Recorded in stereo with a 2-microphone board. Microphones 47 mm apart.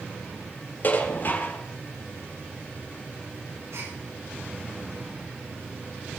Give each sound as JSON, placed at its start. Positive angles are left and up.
{"t": 0.8, "sound": "dishes clattering", "side_deg": 45, "distance_m": 2.5}
{"t": 3.7, "sound": "a gasp", "side_deg": -80, "distance_m": 7.0}